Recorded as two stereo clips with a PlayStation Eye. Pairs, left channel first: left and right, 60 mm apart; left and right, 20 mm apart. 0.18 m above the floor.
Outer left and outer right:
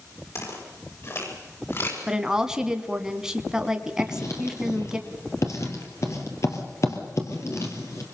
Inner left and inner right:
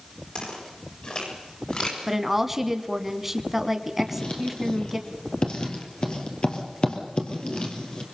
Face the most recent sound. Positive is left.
turn(degrees=55)  # may be behind; listen again after turning